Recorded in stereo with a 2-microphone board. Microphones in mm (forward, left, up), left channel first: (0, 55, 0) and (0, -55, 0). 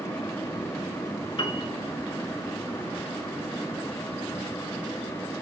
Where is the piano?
55° left (ahead or behind), 0.9 m.